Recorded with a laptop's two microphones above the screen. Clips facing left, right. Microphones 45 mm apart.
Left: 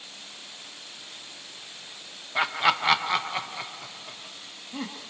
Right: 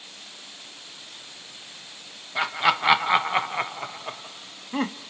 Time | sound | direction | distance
2.4 | laughter | 5° left (ahead or behind) | 1.0 m